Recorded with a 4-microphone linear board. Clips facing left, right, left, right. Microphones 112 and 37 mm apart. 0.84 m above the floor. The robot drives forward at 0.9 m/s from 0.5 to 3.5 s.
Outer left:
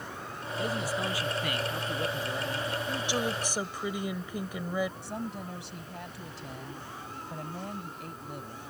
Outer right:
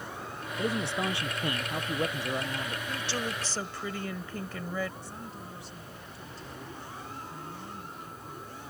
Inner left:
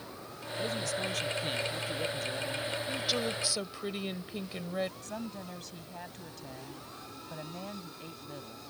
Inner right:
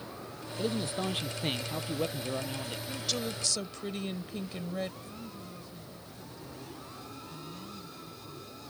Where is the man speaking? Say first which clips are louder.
Outer right 1 dB, inner right 1 dB; 25° right (ahead or behind); by 2.8 s 30° right (ahead or behind).